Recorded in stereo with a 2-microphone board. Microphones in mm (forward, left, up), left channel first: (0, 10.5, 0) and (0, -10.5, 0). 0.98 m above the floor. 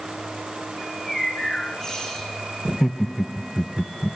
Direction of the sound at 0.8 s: 30° left (ahead or behind).